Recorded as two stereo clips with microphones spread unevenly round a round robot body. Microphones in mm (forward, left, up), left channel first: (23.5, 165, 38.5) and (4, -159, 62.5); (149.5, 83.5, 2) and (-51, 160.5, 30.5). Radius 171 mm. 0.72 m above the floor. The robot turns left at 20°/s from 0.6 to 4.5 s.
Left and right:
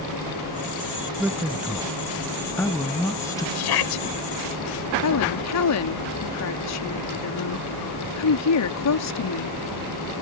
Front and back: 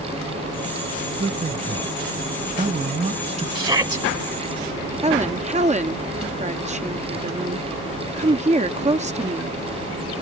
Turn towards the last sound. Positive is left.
turn(degrees=100)